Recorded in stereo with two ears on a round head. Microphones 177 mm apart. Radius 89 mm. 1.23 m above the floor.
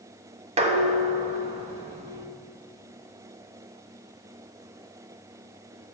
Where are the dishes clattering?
30° right (ahead or behind), 1.2 m.